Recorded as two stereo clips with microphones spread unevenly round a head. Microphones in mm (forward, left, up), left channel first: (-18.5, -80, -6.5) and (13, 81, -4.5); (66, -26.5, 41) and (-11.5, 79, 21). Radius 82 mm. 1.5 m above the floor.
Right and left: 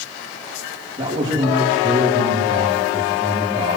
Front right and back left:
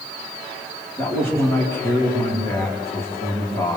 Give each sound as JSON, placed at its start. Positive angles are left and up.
{"t": 1.0, "sound": "a man speaking", "azimuth_deg": 15, "distance_m": 4.5}